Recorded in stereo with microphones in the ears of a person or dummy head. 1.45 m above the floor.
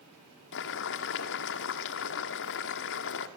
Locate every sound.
0.5 s boiling: 60° left (ahead or behind), 1.6 m